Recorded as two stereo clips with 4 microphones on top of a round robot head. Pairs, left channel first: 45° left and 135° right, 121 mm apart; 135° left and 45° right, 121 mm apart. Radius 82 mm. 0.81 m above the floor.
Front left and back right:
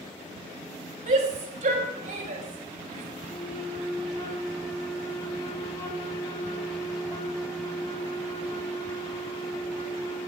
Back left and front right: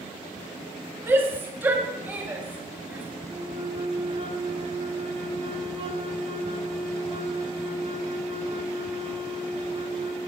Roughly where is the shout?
Behind right.